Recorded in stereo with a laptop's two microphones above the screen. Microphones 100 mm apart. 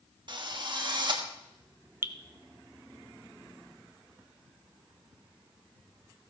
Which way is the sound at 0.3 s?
50° right (ahead or behind).